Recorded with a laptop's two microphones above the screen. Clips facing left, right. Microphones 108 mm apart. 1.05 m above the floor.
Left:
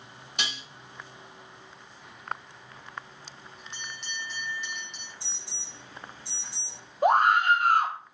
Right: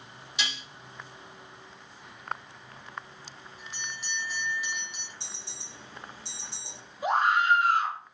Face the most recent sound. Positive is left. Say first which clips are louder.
# left 3 dB
turn(degrees=55)  # may be behind; listen again after turning